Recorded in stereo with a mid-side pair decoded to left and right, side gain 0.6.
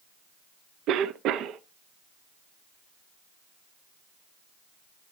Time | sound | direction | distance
0.9 | a cough | 60° right | 0.8 m